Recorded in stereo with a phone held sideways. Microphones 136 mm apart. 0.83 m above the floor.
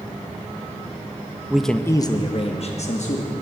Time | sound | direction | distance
1.5 | a man speaking | 10° right (ahead or behind) | 0.5 m